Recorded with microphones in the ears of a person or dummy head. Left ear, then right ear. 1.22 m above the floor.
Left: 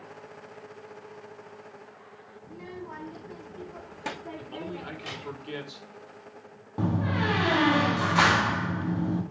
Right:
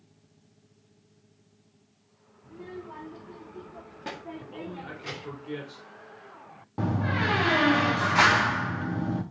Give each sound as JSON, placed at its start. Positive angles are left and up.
{"t": 2.4, "sound": "a child speaking", "side_deg": 85, "distance_m": 1.8}
{"t": 4.4, "sound": "a man speaking", "side_deg": 35, "distance_m": 3.5}
{"t": 6.8, "sound": "a door slam", "side_deg": -5, "distance_m": 1.1}